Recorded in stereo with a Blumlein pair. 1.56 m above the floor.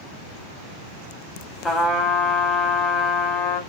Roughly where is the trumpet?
Ahead.